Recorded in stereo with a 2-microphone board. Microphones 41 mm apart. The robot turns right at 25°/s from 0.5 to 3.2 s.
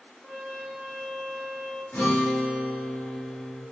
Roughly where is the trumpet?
Ahead.